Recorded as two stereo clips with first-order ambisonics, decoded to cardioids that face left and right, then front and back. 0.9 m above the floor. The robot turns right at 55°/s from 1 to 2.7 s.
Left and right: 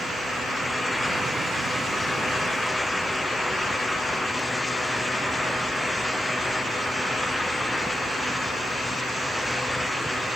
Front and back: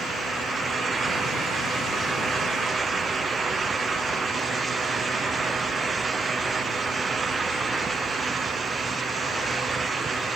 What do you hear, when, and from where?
Only background noise.